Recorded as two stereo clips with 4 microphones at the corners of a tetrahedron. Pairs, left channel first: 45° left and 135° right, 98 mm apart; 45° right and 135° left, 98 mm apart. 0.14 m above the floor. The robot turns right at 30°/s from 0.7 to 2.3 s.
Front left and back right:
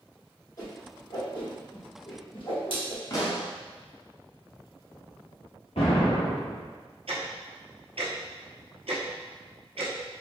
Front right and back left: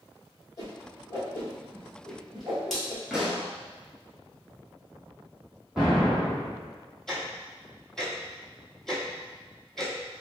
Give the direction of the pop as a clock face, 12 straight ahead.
10 o'clock.